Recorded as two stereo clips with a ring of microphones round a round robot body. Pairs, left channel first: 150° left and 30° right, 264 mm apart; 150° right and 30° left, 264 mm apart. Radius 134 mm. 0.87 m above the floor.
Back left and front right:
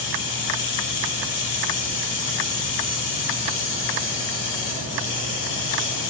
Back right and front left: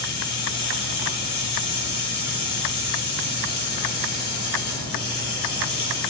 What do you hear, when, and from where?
0.0 s running water: 160° left, 9.5 m